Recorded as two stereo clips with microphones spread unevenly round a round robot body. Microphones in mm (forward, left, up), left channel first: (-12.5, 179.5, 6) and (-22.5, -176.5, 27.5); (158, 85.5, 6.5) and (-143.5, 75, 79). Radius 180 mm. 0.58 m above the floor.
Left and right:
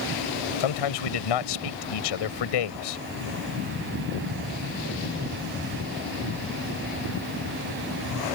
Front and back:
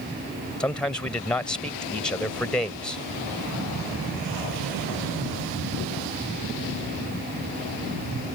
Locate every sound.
0.6 s a man speaking: 85° left